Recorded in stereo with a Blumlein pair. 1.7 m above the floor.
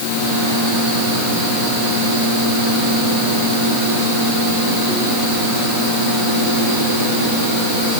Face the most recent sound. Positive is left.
No sound to turn to.